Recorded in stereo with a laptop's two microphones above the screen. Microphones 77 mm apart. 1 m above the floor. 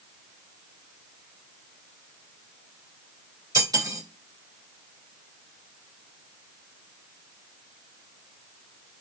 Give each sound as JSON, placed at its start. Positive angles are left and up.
{"t": 3.5, "sound": "cutlery clinking", "side_deg": -50, "distance_m": 0.6}